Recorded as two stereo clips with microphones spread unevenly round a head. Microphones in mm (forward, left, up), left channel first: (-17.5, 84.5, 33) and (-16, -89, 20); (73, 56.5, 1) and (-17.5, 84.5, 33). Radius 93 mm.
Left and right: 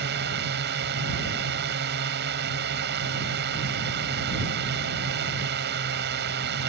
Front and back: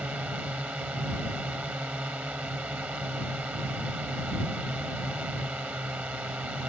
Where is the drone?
115° right.